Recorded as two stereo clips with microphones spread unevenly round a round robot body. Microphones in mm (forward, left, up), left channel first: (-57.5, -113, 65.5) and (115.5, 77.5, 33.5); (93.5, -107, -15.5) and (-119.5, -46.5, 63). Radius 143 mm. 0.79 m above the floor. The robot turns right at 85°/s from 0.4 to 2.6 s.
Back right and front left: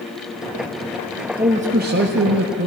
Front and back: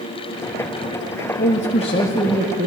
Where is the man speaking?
20° right, 1.5 m; by 2.7 s 85° left, 1.5 m.